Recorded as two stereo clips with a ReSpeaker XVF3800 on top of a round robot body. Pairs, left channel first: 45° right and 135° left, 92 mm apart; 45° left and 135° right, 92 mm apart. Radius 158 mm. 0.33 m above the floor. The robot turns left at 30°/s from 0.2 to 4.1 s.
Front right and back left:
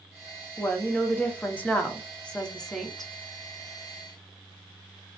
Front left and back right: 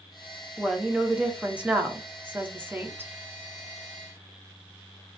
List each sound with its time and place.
0.6 s a woman speaking: 50° right, 1.0 m; by 3.1 s 130° right, 1.0 m